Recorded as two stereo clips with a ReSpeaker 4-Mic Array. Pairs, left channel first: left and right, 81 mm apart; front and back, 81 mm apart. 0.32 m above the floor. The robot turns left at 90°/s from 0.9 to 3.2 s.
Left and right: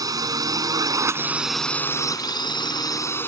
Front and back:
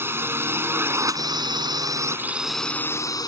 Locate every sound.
0.0 s a drone: 125° right; by 3.3 s 30° left